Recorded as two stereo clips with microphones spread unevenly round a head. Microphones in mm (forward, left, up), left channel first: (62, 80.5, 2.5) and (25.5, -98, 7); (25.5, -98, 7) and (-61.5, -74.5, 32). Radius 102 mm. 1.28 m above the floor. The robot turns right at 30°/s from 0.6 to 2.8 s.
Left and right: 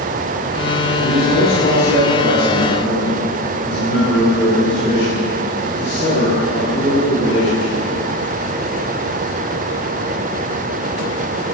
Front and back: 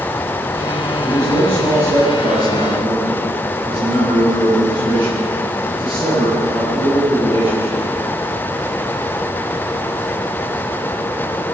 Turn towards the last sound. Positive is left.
turn(degrees=115)